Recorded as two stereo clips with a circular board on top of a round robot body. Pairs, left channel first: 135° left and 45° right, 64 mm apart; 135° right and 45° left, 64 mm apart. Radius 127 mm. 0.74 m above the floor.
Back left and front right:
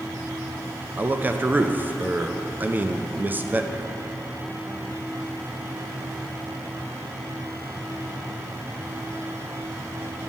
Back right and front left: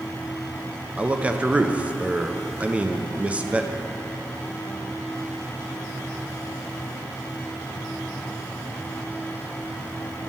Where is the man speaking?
10° right, 0.7 m.